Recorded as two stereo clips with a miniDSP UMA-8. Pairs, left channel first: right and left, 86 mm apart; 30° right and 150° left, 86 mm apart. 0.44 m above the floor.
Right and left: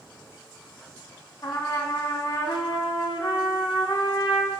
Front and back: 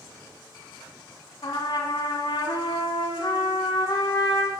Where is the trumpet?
55° right, 1.5 m.